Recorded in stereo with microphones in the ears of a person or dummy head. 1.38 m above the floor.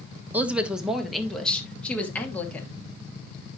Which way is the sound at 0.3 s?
10° right (ahead or behind).